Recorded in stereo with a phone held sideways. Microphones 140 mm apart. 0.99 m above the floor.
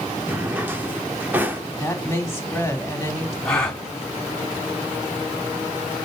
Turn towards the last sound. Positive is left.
turn(degrees=5)  # may be behind; listen again after turning